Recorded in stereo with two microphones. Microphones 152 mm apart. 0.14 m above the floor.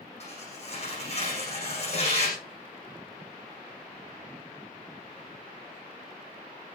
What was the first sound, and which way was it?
Tearing paper, 45° left (ahead or behind).